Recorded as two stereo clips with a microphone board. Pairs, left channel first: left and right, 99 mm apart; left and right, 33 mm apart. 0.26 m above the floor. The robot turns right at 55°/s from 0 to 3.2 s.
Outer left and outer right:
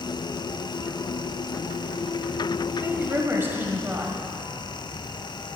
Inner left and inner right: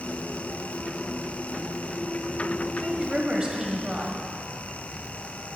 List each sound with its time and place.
2.8 s a woman speaking: 20° right (ahead or behind), 1.6 m